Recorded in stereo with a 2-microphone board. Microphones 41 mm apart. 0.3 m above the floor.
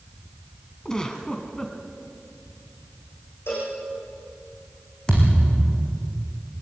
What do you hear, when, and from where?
0.8 s a giggle: 20° left (ahead or behind), 2 m
3.5 s a cowbell: 85° left, 8.5 m
5.1 s a thud: 20° left (ahead or behind), 5.5 m